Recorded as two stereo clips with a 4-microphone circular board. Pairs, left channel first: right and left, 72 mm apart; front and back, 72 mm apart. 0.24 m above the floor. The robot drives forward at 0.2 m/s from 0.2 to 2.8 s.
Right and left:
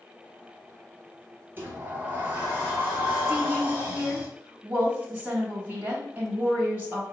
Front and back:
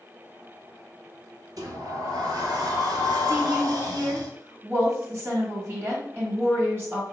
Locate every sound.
1.6 s a sliding door: 150° left, 0.7 m; by 4.3 s 160° left, 1.0 m
3.3 s a woman speaking: 145° left, 1.4 m